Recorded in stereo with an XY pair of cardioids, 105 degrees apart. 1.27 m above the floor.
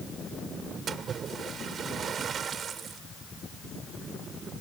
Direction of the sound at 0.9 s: 50° right.